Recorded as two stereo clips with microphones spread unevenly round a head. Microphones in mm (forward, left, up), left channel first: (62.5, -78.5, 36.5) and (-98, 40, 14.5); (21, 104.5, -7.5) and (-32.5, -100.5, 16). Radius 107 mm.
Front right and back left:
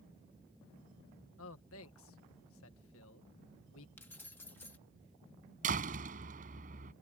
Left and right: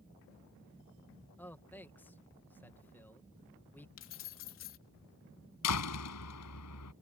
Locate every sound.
1.4 s a man speaking: 5° right
4.0 s keys jangling: 40° left
5.6 s a door slam: 85° left